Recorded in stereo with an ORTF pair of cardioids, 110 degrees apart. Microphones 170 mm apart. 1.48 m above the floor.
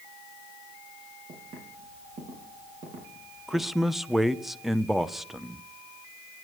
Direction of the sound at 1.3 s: 40° right.